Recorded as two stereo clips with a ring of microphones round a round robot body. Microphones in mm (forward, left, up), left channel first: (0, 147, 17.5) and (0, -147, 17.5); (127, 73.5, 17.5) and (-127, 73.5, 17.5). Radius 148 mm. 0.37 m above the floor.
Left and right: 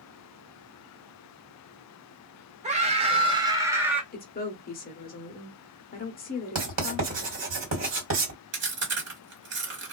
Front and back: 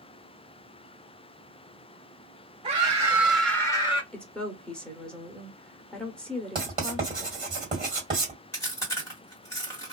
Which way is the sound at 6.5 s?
115° right.